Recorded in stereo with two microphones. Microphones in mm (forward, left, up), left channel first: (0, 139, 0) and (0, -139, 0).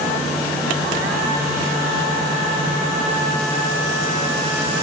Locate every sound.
Only background noise.